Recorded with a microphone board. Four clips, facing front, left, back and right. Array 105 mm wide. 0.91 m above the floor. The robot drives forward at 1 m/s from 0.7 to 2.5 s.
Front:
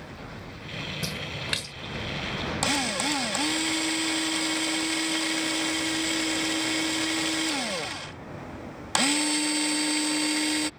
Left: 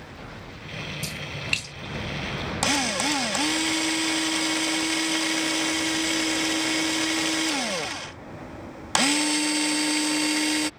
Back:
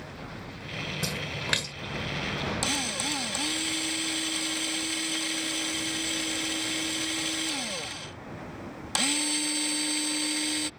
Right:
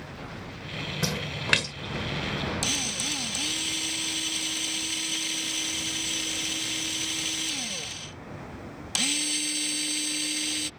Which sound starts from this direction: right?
A splash, at 1.0 s.